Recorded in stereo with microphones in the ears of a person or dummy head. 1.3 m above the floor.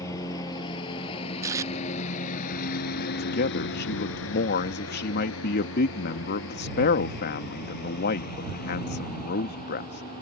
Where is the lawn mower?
25° left (ahead or behind); by 10.2 s 40° left (ahead or behind).